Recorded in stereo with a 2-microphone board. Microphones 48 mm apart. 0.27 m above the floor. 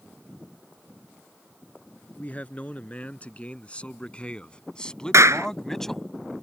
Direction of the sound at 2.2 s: 30° left (ahead or behind).